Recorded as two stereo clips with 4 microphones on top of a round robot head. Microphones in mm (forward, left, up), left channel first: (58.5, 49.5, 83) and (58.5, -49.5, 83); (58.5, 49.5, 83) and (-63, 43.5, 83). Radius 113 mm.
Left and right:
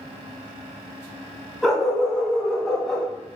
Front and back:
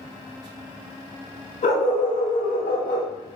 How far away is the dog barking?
About 4 m.